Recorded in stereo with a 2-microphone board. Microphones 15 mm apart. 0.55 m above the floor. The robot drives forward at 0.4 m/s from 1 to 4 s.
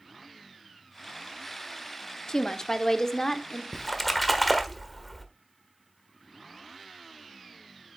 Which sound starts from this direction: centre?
A splash, at 3.7 s.